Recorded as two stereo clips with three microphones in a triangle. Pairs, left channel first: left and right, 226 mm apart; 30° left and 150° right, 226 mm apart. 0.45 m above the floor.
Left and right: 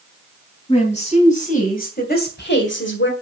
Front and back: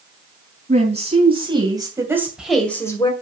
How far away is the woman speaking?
About 4 m.